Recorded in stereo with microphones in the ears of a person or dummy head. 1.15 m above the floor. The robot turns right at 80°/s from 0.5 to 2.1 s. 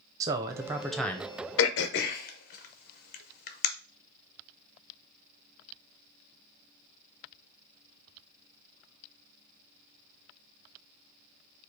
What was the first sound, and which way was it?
A man speaking, 35° right.